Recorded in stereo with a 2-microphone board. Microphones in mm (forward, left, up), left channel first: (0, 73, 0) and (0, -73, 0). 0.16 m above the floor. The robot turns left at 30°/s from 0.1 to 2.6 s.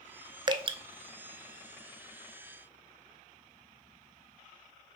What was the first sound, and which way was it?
Dripping, 30° right (ahead or behind).